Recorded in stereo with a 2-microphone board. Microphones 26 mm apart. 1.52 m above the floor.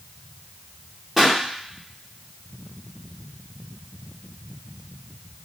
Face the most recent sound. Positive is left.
turn(degrees=-5)  # may be behind; listen again after turning